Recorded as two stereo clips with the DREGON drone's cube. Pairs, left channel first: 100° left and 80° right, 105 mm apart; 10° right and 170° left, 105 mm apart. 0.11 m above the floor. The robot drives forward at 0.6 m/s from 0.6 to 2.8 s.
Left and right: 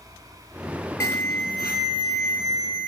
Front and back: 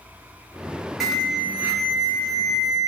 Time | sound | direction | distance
1.0 | an alarm | 85° left | 1.4 m